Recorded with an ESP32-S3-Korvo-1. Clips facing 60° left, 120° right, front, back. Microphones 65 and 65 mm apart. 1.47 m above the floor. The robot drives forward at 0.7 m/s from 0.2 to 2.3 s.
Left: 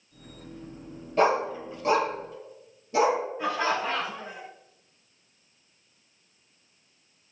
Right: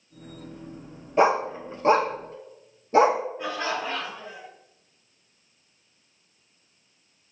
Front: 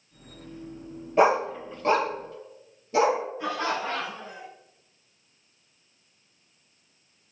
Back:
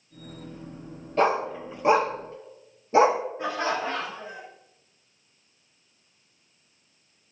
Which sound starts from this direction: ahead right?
A dog barking, at 1.2 s.